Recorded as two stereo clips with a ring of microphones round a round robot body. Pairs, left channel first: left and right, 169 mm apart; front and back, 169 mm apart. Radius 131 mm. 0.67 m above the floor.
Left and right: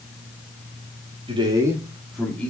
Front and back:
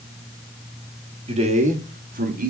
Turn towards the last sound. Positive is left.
turn(degrees=170)